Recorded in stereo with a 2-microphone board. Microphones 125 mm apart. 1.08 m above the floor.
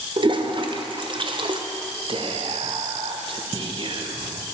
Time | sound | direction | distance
0.2 | a toilet flushing | 40° right (ahead or behind) | 0.6 m
2.1 | whispering | 45° right (ahead or behind) | 0.8 m